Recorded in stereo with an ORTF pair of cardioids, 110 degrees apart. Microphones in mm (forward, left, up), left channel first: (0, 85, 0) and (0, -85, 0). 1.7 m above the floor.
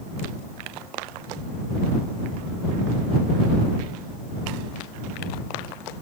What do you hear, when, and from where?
Only background noise.